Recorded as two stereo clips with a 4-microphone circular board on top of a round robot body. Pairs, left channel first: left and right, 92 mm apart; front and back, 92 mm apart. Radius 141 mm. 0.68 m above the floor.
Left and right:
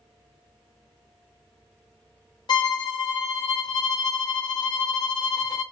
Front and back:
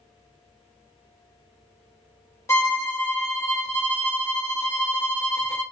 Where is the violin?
55° left, 1.1 m.